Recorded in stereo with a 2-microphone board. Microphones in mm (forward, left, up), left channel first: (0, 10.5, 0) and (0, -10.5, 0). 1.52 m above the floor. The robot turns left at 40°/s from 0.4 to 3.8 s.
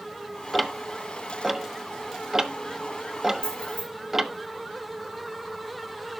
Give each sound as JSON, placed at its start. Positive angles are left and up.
{"t": 0.5, "sound": "ticking", "side_deg": 0, "distance_m": 0.9}
{"t": 3.4, "sound": "keys jangling", "side_deg": 45, "distance_m": 6.0}